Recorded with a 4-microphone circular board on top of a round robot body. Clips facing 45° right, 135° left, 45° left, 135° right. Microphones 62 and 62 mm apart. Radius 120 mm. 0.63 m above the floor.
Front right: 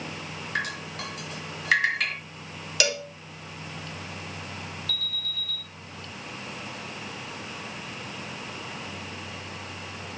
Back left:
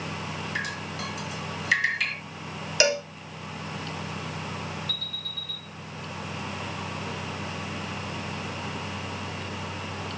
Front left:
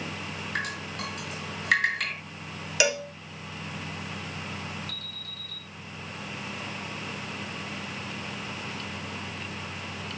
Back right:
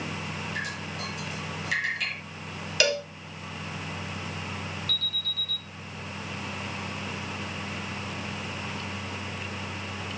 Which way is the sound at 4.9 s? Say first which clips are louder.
Front right 2 dB, back right 6 dB; 15° right.